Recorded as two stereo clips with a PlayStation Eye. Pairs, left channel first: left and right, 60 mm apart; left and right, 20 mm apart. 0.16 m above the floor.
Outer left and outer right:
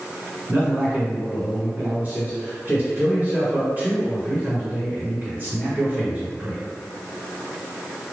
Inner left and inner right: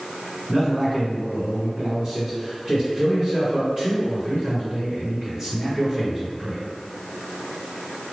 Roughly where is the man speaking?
Right.